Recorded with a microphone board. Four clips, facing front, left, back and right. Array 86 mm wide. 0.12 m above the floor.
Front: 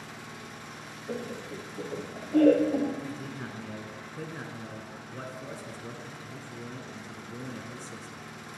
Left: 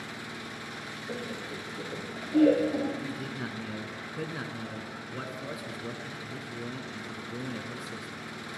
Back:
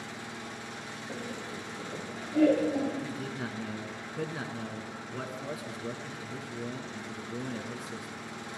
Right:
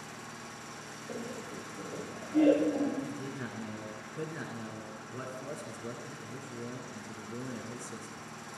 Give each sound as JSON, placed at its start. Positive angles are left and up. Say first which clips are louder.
{"t": 0.0, "sound": "an engine running", "louder": "left 5 dB, back 2 dB", "azimuth_deg": 105, "distance_m": 1.3}
{"t": 1.1, "sound": "laughter", "louder": "left 2 dB, front 4 dB", "azimuth_deg": 25, "distance_m": 7.0}
{"t": 3.0, "sound": "a man speaking", "louder": "left 3 dB, back 2 dB", "azimuth_deg": 125, "distance_m": 1.1}